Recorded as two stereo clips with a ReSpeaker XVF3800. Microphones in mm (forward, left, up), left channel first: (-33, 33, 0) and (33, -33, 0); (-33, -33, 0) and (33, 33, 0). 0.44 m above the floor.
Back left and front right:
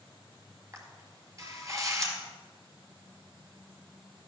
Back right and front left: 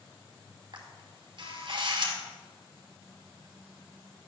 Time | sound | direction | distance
0.7 | a camera shutter | 10° left | 2 m